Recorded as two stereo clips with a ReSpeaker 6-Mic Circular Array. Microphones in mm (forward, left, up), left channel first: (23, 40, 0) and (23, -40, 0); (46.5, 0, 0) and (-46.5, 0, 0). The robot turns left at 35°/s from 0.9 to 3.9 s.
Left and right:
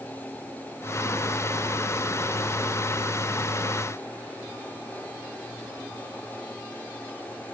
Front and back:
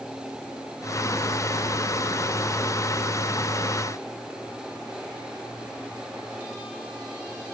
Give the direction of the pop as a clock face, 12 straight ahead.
I don't hear a pop.